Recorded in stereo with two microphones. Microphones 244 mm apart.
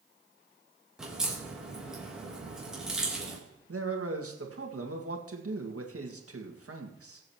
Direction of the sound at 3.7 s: 65° right (ahead or behind).